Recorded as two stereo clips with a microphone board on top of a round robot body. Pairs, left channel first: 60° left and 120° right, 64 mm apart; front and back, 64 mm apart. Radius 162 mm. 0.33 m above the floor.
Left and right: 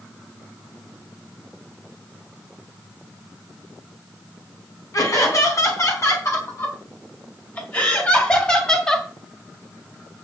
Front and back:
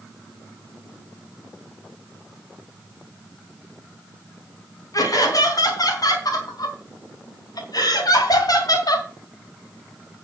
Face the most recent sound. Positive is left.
turn(degrees=-15)